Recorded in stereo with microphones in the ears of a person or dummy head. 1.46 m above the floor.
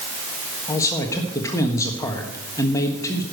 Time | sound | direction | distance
0.7 | a man speaking | 20° left (ahead or behind) | 1.4 m